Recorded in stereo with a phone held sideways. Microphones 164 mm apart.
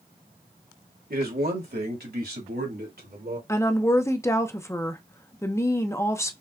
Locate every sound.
1.1 s a man speaking: 65° right (ahead or behind), 1.3 m; by 3.4 s 75° right (ahead or behind), 2.5 m
3.5 s a woman speaking: 15° left (ahead or behind), 0.6 m